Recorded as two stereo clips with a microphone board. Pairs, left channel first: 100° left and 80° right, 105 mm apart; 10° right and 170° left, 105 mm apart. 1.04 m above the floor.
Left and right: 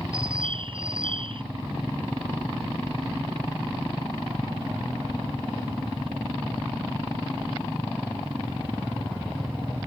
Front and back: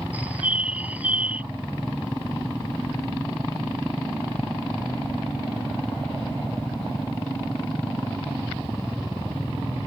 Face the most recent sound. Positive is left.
turn(degrees=-115)